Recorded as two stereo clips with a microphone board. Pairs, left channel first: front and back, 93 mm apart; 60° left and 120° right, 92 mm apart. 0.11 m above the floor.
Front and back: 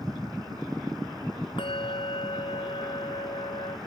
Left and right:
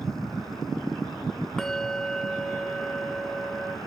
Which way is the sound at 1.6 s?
25° right.